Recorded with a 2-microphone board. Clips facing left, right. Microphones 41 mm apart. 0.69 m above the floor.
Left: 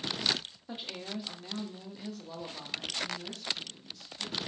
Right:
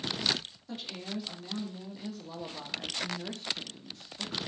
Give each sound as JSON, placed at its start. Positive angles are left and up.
{"t": 0.7, "sound": "a woman speaking", "side_deg": 20, "distance_m": 1.9}